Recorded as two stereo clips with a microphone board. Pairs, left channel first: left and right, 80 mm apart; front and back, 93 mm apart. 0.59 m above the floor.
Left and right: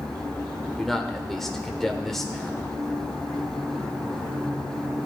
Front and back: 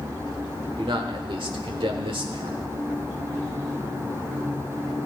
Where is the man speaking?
175° left, 1.4 m.